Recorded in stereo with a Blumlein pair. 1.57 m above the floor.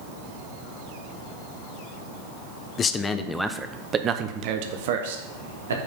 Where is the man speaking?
25° left, 0.8 m; by 5.8 s 65° right, 1.4 m.